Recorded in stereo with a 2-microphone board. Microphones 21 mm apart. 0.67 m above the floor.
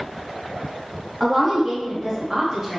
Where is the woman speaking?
10° right (ahead or behind), 1.2 m; by 2.8 s 35° right (ahead or behind), 1.2 m.